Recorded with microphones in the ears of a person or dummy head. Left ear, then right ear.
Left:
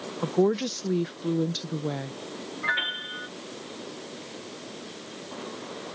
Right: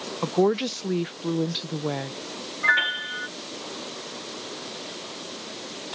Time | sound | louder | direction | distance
0.2 | a woman speaking | right 2 dB | 25° right (ahead or behind) | ?
2.6 | a piano | right 6 dB | 20° right (ahead or behind) | ?